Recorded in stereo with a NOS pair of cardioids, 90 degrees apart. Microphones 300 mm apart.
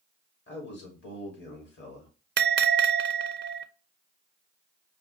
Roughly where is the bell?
Ahead right.